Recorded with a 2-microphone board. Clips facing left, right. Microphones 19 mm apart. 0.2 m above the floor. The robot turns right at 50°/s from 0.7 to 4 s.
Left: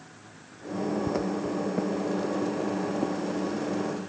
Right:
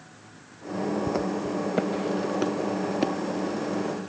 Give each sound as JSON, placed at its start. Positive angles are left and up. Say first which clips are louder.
{"t": 1.1, "sound": "footsteps", "louder": "right 1 dB", "side_deg": -5}